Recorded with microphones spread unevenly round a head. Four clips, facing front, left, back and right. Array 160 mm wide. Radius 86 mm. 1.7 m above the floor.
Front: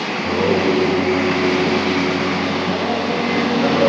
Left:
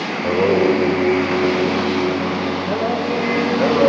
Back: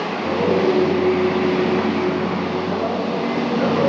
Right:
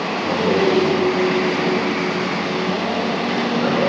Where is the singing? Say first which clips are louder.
Left 3 dB, front 1 dB; 90° left, 8 m.